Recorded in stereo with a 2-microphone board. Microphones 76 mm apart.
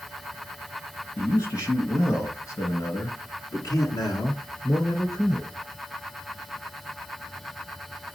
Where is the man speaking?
40° left (ahead or behind), 2 m; by 5.5 s 50° left (ahead or behind), 1.9 m.